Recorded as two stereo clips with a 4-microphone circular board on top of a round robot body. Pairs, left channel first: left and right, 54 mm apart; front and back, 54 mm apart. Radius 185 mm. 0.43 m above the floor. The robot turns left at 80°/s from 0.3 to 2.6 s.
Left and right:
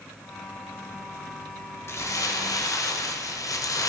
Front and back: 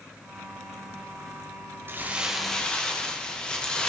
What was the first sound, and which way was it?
Crumpling, 130° left.